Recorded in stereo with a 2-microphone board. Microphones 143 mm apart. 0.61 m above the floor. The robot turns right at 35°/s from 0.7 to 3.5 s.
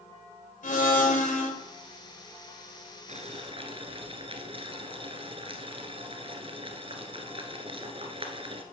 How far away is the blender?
About 1.9 m.